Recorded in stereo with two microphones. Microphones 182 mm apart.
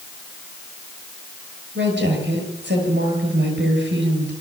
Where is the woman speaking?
80° right, 8.5 m.